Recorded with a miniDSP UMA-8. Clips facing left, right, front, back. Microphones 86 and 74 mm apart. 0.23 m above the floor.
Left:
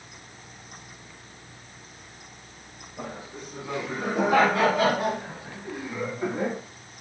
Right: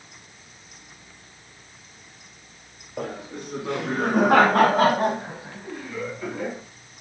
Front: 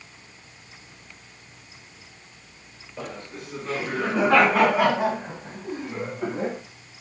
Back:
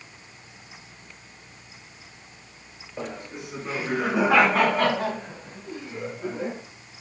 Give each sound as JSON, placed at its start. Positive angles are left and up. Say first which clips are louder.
{"t": 3.0, "sound": "laughter", "louder": "right 6 dB, back 1 dB", "azimuth_deg": -110, "distance_m": 4.0}